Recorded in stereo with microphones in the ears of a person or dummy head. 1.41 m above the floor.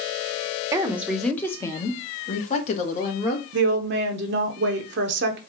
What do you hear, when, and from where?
0.7 s a woman speaking: 15° right (ahead or behind), 0.8 m; by 3.4 s 55° left (ahead or behind), 1.7 m
3.5 s a woman speaking: 60° right (ahead or behind), 0.9 m